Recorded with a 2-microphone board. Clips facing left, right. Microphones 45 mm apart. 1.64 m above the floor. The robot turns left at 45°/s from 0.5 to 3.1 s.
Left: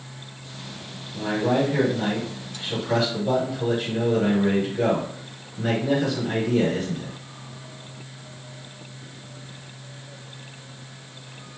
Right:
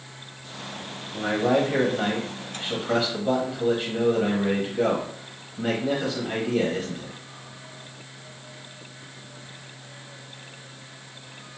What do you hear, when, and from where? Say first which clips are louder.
1.1 s a man speaking: even; 75° right, 1.5 m; by 7.2 s 165° right, 1.5 m